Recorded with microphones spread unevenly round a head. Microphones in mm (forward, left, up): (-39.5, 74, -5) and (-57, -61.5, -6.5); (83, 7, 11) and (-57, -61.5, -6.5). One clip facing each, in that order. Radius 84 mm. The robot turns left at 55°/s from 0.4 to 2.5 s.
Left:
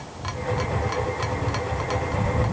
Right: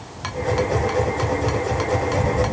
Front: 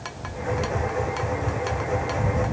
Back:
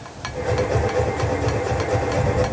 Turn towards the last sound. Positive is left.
No sound to turn to.